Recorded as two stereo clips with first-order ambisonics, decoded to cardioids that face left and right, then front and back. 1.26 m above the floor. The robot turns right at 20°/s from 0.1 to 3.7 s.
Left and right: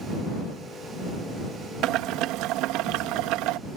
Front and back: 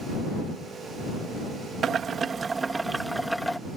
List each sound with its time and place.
1.8 s boiling: 120° right; by 3.6 s 85° right